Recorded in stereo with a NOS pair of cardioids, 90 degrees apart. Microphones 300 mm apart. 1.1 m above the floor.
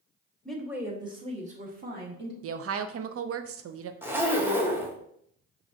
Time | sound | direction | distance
0.5 | a woman speaking | 5° left | 1.2 m
2.4 | a woman speaking | 50° right | 0.6 m
4.0 | a zipper | 5° right | 0.9 m